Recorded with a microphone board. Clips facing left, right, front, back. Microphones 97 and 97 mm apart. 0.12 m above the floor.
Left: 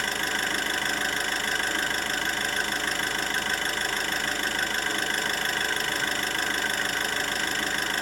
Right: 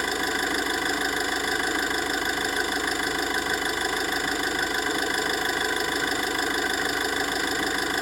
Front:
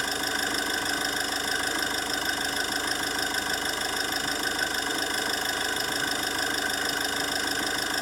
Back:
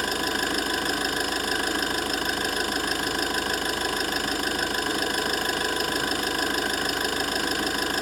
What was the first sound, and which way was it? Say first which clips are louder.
An engine running: right 3 dB, back 3 dB; 165° right.